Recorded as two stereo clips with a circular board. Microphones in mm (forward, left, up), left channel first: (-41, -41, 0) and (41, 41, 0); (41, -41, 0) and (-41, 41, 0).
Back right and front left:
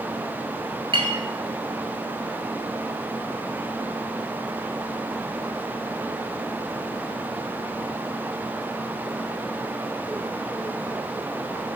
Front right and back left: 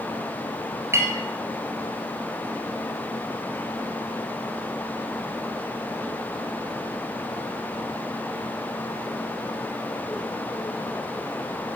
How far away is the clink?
About 1.4 m.